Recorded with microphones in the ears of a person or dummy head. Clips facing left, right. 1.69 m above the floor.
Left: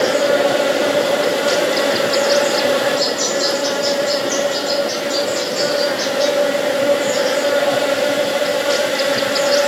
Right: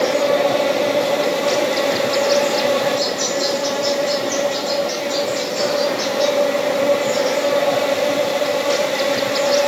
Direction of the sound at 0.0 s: 10° left (ahead or behind).